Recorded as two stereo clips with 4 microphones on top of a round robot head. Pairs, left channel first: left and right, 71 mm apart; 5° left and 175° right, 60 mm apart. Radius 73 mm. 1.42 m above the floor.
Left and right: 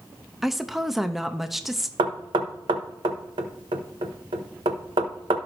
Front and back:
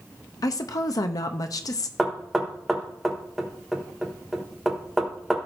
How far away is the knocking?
About 1.1 m.